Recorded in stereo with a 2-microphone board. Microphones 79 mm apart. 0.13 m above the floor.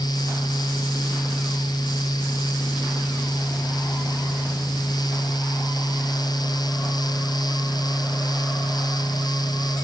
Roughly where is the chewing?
I don't hear chewing.